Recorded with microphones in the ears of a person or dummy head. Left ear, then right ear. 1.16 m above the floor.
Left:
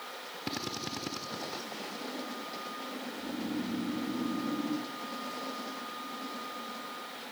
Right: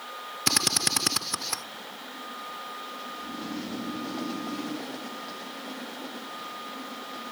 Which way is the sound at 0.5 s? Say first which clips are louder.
Right 13 dB; 65° right (ahead or behind).